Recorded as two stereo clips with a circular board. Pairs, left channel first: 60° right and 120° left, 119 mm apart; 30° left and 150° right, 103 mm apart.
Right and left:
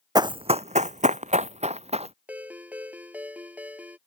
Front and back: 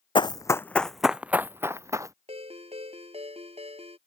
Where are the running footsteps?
65° left; by 2.1 s 150° left.